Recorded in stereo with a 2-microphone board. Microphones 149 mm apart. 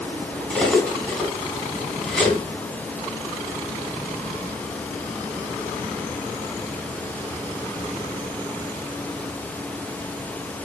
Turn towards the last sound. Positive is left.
turn(degrees=5)  # may be behind; listen again after turning